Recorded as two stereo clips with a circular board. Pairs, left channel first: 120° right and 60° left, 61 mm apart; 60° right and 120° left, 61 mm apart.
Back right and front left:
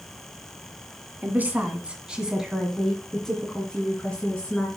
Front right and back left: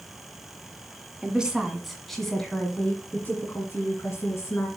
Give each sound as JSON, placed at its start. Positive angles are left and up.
{"t": 1.2, "sound": "a woman speaking", "azimuth_deg": 65, "distance_m": 1.8}